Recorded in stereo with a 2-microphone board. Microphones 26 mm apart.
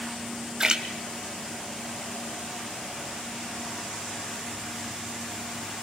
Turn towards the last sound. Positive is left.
turn(degrees=-30)  # may be behind; listen again after turning